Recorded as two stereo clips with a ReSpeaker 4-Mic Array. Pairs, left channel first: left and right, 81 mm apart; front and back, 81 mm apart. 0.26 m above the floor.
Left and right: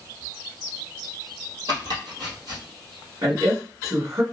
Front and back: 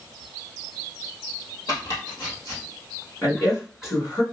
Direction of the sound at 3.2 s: 50° right.